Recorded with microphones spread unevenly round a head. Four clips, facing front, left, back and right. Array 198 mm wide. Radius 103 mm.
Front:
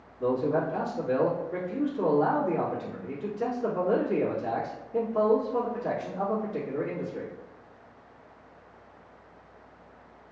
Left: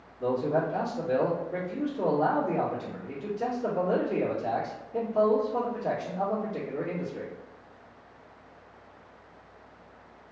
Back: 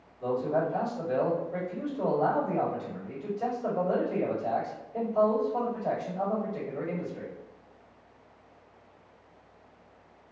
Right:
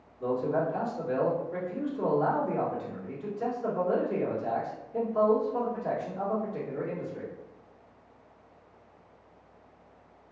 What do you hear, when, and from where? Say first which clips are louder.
0.2 s a man speaking: left 1 dB, front 2 dB; 20° left, 1.5 m